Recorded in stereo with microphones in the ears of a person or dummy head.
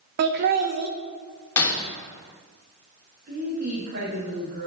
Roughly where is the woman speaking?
Right.